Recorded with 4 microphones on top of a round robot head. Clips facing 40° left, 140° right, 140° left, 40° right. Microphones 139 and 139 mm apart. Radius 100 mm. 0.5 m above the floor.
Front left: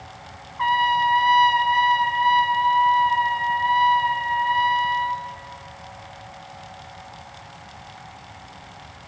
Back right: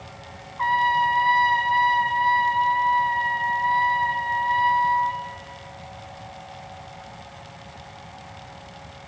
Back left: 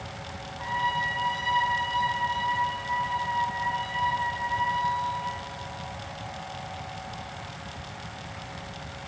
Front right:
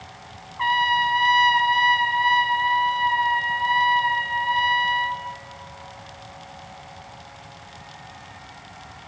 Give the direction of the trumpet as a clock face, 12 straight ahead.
1 o'clock.